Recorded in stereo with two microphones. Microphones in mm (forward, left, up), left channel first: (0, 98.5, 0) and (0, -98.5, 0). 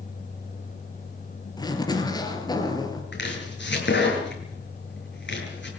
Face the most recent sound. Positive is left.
turn(degrees=65)  # may be behind; listen again after turning